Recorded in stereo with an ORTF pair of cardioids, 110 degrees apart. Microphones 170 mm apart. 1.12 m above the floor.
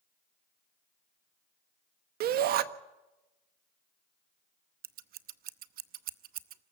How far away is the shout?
About 1.4 m.